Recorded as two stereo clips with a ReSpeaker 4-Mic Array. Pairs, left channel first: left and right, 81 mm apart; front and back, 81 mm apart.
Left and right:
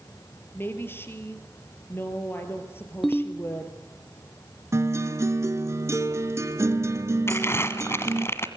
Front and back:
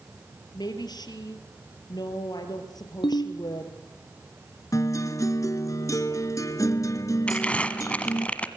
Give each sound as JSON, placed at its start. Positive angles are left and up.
{"t": 0.5, "sound": "a woman speaking", "azimuth_deg": 30, "distance_m": 3.5}
{"t": 3.0, "sound": "a ringtone", "azimuth_deg": 0, "distance_m": 1.9}
{"t": 4.7, "sound": "a guitar", "azimuth_deg": -40, "distance_m": 1.2}
{"t": 7.3, "sound": "crumpling", "azimuth_deg": 60, "distance_m": 1.5}